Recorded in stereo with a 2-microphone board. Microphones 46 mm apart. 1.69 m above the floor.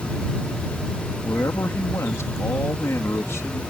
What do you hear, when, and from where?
1.2 s a man speaking: 85° left